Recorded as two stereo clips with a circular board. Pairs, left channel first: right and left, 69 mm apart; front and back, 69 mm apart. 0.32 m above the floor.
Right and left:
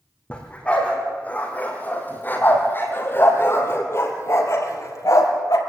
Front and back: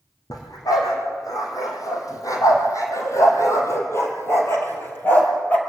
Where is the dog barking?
20° right, 4.5 m; by 5.6 s 65° right, 2.5 m.